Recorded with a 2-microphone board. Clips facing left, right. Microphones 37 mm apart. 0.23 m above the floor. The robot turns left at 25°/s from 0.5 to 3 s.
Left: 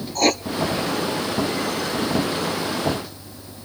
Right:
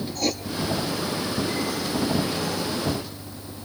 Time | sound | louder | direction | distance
0.1 | writing | left 9 dB | 70° left (ahead or behind) | 0.7 m